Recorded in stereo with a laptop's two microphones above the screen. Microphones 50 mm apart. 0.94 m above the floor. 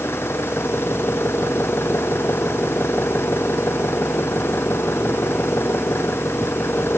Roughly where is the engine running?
Left.